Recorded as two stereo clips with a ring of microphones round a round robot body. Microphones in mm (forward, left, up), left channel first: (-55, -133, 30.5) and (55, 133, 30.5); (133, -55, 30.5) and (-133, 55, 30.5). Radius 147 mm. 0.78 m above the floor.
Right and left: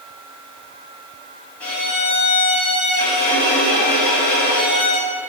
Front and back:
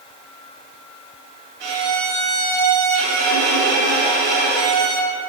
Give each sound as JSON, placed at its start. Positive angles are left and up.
{"t": 1.6, "sound": "a violin", "azimuth_deg": 165, "distance_m": 1.8}